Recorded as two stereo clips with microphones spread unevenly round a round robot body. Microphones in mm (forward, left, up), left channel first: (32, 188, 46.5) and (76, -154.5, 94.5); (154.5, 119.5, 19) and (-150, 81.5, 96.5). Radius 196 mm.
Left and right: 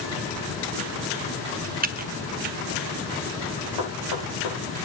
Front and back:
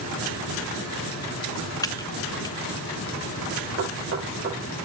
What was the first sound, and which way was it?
Typing on a keyboard, 25° right.